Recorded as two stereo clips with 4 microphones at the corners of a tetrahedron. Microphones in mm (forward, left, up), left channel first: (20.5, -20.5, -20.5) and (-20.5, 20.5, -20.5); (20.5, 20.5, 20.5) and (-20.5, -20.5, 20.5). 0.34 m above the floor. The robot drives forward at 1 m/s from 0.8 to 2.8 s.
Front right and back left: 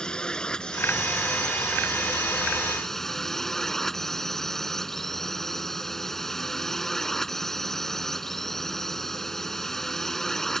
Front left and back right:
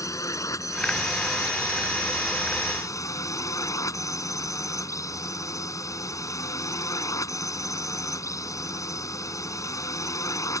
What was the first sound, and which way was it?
A drone, 30° left.